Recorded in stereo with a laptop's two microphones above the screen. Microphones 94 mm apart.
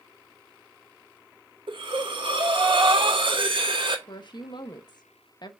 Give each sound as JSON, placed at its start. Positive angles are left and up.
{"t": 1.7, "sound": "breathing", "side_deg": -60, "distance_m": 1.6}
{"t": 4.1, "sound": "a woman speaking", "side_deg": 50, "distance_m": 0.9}